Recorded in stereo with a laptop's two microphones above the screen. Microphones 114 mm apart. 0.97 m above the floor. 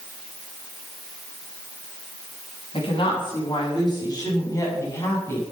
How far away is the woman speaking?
About 7.5 m.